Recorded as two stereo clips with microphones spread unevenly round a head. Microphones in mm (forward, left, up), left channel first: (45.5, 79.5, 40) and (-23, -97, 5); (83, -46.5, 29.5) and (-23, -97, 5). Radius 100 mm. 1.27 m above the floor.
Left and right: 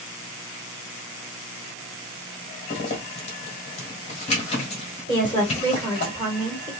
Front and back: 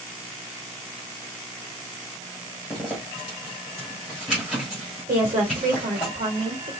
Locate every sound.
2.7 s a zipper: 105° left, 1.5 m
5.1 s a woman speaking: 150° left, 1.6 m